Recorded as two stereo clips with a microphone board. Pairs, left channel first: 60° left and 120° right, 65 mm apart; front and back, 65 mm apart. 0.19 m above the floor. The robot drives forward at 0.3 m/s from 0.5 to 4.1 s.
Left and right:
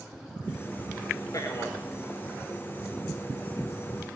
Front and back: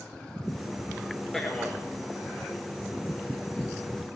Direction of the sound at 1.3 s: 85° left.